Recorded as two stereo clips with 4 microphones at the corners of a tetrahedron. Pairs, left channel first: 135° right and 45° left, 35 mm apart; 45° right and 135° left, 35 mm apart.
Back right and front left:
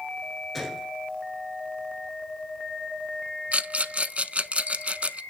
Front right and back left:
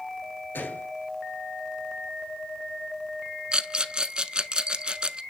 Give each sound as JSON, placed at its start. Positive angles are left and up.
{"t": 0.5, "sound": "a gunshot", "azimuth_deg": -50, "distance_m": 1.7}
{"t": 3.5, "sound": "a rattle", "azimuth_deg": 80, "distance_m": 0.6}